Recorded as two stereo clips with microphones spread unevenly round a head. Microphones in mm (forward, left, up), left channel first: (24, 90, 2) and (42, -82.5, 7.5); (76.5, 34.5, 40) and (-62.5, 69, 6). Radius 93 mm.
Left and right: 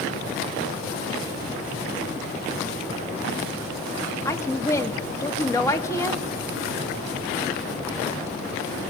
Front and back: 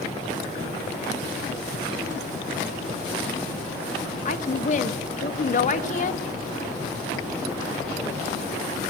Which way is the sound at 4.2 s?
20° left.